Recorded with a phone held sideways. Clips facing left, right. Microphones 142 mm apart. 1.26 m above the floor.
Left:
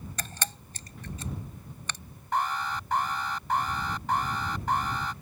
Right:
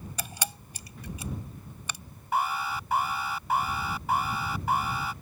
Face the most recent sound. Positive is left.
turn(degrees=-10)  # may be behind; listen again after turning